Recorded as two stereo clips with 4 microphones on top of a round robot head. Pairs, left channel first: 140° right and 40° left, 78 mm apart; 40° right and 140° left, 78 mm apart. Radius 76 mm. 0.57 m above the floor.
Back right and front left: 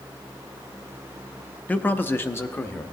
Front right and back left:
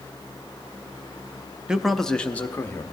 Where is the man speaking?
160° right, 0.7 m; by 2.8 s 90° right, 1.0 m.